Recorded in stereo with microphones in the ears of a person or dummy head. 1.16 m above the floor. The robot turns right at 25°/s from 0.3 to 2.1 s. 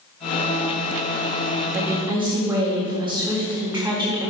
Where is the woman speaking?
10° right (ahead or behind), 1.6 m; by 4.3 s 15° right (ahead or behind), 1.6 m.